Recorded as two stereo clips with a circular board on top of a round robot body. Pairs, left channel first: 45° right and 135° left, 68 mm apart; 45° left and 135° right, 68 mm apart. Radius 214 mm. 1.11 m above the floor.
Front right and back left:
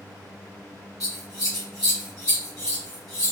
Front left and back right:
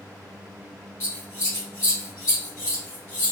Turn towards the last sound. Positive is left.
turn(degrees=-5)